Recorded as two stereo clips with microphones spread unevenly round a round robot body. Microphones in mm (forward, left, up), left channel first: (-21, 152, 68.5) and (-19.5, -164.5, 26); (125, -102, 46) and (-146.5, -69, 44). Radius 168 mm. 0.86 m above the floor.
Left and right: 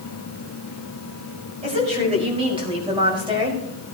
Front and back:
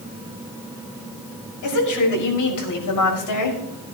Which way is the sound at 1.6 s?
15° right.